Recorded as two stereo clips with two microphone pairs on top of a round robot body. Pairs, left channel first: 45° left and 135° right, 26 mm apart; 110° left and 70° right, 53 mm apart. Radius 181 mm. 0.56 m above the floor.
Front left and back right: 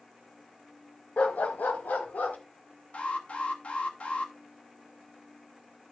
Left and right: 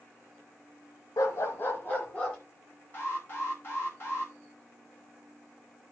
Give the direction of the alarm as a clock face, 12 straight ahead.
10 o'clock.